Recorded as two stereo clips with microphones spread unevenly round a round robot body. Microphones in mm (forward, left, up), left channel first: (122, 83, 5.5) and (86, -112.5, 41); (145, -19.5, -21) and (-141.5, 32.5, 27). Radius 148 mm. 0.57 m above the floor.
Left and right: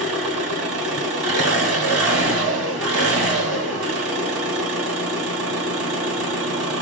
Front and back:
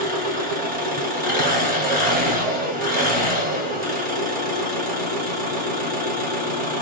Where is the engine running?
125° right, 1.5 m.